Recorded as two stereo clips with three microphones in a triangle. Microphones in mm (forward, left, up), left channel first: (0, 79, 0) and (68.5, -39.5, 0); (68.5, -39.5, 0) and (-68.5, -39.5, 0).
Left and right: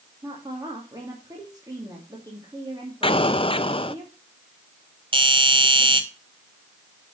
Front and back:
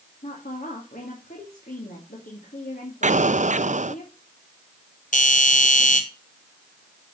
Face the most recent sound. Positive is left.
turn(degrees=-10)